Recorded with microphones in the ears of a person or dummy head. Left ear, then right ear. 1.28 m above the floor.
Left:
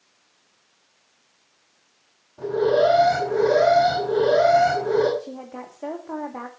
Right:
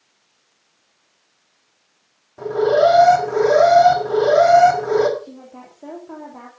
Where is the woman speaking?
70° left (ahead or behind), 2 m.